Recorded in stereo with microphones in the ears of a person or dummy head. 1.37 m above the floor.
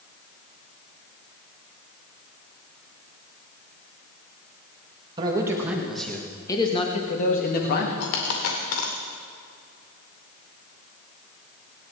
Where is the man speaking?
20° right (ahead or behind), 1.8 m; by 7.9 s 55° left (ahead or behind), 2.5 m.